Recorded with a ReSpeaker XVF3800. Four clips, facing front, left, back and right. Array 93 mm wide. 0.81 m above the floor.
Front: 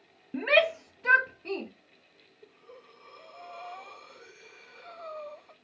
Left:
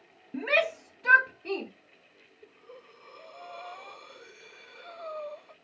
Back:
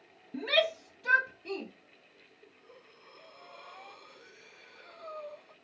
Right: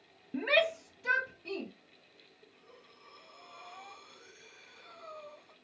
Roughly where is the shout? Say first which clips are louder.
Left 2 dB, front 5 dB; ahead.